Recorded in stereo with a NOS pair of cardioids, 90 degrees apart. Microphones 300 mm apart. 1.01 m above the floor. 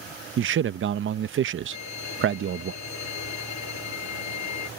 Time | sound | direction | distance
0.4 | a man speaking | 45° right | ?
1.7 | a violin | 65° left | ?